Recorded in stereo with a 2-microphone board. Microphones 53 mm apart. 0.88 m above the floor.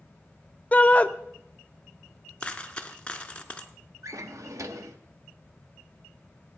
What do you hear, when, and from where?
0.7 s a shout: 25° left (ahead or behind), 0.7 m
2.4 s a dropped coin: 20° left (ahead or behind), 0.9 m
4.0 s a drawer: 85° right, 0.8 m